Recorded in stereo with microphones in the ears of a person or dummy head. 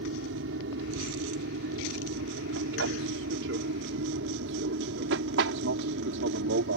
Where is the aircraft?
70° right (ahead or behind); by 6.8 s 65° right (ahead or behind).